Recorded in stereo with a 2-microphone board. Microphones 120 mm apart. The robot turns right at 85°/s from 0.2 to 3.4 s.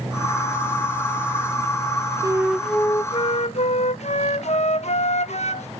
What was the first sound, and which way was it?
A flute, 35° right.